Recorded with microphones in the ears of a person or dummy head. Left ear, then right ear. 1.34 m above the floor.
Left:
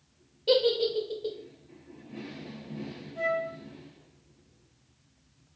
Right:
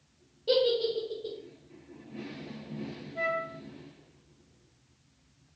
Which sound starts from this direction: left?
A giggle, at 0.5 s.